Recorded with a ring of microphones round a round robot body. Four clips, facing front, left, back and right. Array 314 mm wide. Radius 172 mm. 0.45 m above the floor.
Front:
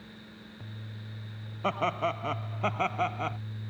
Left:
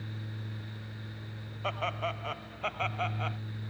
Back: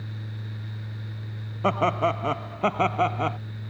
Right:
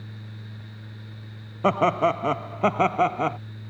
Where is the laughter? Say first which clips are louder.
Right 14 dB, back 6 dB; 110° right; by 3.4 s 115° right.